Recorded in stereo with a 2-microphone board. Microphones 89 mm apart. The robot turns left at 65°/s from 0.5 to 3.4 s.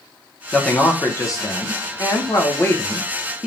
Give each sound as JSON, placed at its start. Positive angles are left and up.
{"t": 0.5, "sound": "a man speaking", "azimuth_deg": 175, "distance_m": 0.9}